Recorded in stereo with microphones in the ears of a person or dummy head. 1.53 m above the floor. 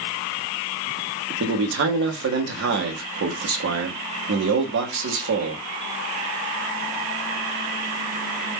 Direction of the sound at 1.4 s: 65° right (ahead or behind).